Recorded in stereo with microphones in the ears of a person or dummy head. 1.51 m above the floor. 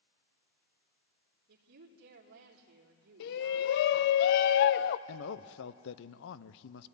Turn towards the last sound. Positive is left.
turn(degrees=60)  # may be behind; listen again after turning